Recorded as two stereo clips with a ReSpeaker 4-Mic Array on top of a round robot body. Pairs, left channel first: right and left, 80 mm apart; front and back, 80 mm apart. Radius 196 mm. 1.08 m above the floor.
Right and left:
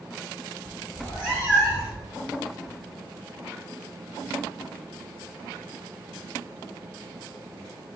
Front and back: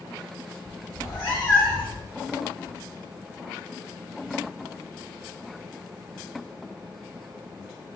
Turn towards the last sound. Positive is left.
turn(degrees=-75)